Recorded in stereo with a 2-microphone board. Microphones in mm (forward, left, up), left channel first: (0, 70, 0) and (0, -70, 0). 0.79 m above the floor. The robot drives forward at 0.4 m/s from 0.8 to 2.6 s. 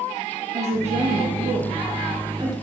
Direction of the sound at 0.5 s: 50° right (ahead or behind).